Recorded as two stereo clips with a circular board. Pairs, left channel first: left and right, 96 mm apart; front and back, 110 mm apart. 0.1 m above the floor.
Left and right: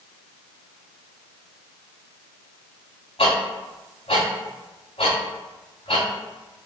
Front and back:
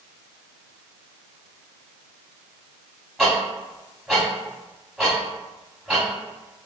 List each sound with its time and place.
3.2 s ticking: 90° left, 2 m